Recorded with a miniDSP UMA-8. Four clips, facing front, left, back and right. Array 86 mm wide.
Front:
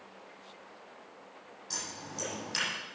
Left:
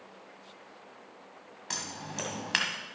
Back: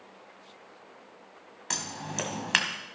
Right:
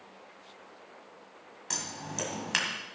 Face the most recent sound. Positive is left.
turn(degrees=175)